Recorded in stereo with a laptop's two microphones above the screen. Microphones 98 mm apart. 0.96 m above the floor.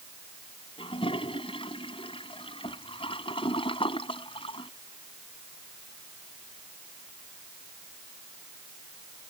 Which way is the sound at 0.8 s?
65° left (ahead or behind).